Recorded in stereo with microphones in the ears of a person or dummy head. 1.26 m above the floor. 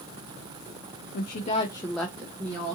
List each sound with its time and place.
1.1 s a woman speaking: 55° left (ahead or behind), 0.6 m; by 2.8 s 30° right (ahead or behind), 0.7 m